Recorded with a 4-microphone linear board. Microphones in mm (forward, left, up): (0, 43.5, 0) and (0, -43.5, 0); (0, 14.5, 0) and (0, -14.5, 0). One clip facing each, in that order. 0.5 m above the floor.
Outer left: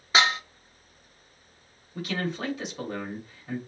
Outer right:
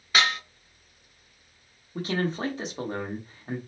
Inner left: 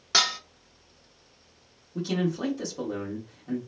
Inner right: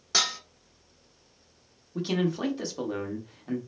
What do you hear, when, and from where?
0.1 s dishes clattering: 25° left (ahead or behind), 0.6 m
1.9 s a man speaking: 30° right (ahead or behind), 1.1 m